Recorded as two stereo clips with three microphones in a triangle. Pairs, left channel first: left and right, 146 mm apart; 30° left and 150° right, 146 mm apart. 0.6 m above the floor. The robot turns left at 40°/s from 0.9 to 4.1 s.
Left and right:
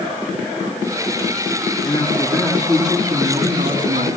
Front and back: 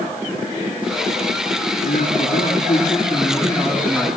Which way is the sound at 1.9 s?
15° left.